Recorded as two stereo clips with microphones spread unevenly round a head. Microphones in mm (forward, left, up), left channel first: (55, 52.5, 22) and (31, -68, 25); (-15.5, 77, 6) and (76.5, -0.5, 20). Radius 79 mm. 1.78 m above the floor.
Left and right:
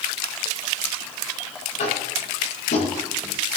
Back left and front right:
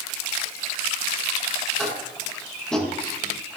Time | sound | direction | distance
1.8 | tapping | 55° left | 8.5 m